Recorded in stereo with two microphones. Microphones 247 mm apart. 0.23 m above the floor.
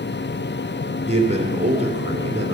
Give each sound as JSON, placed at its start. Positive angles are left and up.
{"t": 1.1, "sound": "a man speaking", "side_deg": -25, "distance_m": 2.0}